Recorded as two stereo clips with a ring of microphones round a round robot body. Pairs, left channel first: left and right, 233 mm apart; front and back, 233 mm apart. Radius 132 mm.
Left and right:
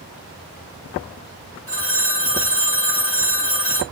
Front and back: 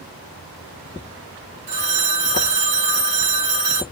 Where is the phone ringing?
170° left, 1.0 m.